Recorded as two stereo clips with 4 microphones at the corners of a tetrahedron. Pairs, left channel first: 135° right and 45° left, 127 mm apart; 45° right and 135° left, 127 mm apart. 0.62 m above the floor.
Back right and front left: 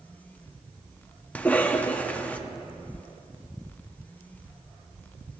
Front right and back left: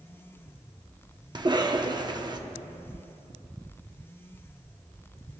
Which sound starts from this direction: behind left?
A cough, at 1.4 s.